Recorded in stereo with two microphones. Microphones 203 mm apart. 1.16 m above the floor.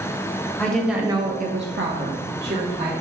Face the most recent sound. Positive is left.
turn(degrees=-55)  # may be behind; listen again after turning